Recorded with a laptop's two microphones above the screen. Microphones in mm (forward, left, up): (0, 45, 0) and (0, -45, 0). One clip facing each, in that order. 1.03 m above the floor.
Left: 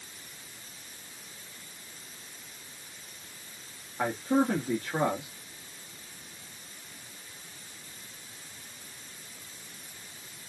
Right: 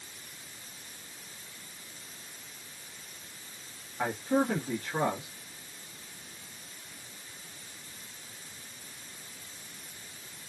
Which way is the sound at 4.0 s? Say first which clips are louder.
Left 2 dB; 30° left (ahead or behind).